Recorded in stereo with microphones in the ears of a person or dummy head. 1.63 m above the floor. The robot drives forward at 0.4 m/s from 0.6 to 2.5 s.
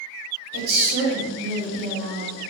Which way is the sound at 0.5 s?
70° right (ahead or behind).